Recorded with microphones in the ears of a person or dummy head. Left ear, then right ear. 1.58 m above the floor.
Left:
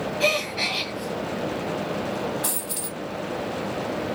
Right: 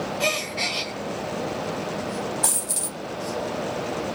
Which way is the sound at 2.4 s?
25° right (ahead or behind).